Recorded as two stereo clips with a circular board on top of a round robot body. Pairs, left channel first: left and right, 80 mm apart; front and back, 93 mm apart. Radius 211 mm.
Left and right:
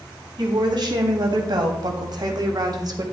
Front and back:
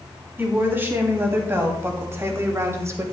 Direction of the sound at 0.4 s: 115° right.